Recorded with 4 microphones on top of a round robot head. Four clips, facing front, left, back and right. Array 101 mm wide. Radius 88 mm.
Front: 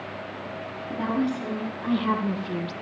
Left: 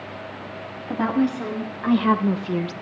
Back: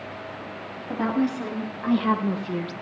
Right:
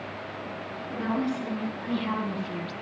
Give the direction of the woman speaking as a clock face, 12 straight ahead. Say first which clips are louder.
Left 7 dB, back 2 dB; 8 o'clock.